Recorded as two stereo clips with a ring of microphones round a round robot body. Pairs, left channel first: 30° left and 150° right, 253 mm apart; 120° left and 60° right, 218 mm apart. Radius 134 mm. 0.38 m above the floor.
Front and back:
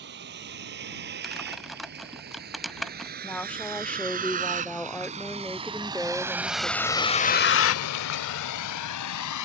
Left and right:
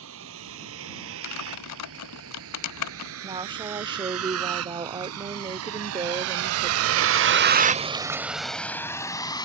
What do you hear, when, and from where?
0.0 s a vehicle: 100° right; by 9.5 s 50° left
1.2 s typing on a keyboard: 120° left
3.2 s a woman speaking: 45° right